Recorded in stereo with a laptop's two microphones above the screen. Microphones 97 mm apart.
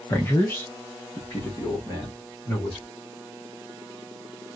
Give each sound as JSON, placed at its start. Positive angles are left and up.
{"t": 0.1, "sound": "a man speaking", "side_deg": 20, "distance_m": 0.6}